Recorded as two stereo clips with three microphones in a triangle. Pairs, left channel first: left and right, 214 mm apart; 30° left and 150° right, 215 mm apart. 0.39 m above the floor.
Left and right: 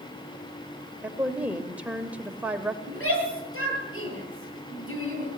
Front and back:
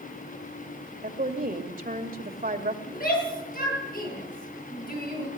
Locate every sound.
1.0 s a woman speaking: 170° right, 1.6 m
2.9 s a shout: 80° left, 9.5 m